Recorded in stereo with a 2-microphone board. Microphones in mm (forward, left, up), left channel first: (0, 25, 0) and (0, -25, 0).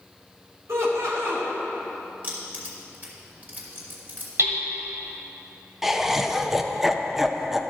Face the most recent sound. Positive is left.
turn(degrees=-5)  # may be behind; listen again after turning